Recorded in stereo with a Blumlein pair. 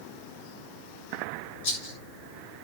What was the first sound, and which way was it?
A rattle, 55° left.